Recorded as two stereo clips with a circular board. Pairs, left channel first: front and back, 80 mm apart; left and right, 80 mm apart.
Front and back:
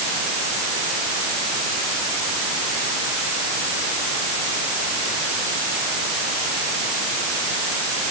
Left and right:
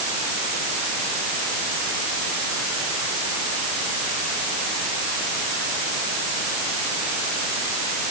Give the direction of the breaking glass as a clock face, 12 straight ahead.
No breaking glass in this recording.